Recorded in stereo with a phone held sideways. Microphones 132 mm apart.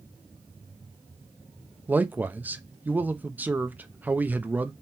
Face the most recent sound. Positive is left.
turn(degrees=-15)  # may be behind; listen again after turning